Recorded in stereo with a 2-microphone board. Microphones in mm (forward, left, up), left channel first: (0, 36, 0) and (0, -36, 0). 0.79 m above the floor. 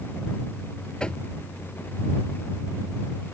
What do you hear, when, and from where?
1.0 s knocking: 15° left (ahead or behind)